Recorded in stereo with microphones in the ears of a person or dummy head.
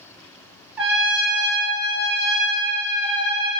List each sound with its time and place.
0.8 s a trumpet: 10° right (ahead or behind), 0.7 m